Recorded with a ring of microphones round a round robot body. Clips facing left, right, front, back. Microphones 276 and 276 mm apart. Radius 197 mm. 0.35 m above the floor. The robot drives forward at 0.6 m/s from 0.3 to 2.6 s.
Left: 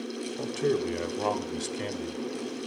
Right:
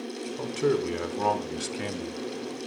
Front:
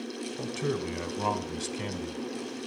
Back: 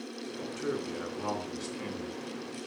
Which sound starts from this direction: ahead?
A man speaking, at 0.4 s.